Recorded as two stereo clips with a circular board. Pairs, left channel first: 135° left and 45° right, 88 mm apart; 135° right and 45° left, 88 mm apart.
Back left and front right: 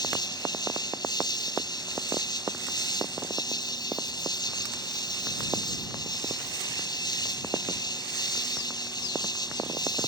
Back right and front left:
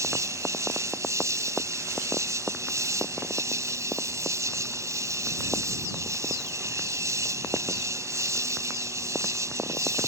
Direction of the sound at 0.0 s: 100° left.